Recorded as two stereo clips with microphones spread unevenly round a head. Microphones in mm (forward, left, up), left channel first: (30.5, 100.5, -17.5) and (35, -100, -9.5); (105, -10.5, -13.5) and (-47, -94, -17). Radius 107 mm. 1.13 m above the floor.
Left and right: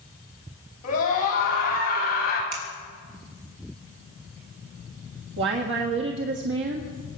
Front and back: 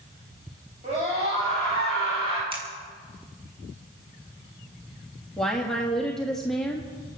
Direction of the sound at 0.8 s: 145° left.